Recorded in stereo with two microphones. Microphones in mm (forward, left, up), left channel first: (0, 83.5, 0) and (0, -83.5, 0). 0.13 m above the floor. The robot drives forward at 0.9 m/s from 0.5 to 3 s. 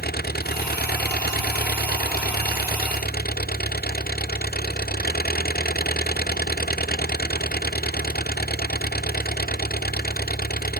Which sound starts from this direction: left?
An engine running, at 0.0 s.